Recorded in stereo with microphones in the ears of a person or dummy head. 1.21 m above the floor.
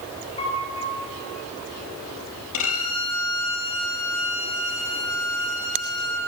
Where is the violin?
75° left (ahead or behind), 4.5 m.